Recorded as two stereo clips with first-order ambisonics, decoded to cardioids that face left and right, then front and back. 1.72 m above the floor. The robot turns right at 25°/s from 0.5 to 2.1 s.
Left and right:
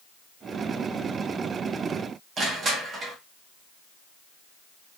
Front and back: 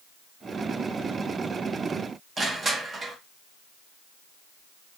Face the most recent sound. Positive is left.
turn(degrees=-125)